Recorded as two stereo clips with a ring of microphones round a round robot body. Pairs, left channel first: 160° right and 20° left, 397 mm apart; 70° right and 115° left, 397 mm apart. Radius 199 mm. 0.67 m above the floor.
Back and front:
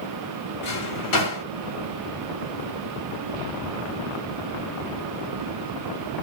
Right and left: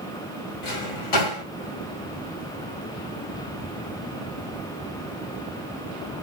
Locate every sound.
0.6 s a drawer: 110° right, 1.6 m